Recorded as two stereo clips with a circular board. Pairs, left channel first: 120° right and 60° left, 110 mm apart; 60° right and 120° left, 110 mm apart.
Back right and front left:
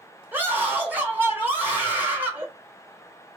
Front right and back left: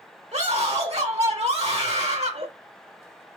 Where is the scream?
135° left, 1.7 m.